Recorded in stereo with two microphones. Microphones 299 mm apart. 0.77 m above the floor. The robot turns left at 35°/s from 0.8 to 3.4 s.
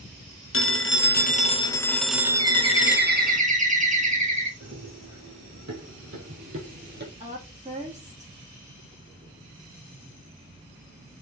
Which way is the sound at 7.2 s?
25° right (ahead or behind).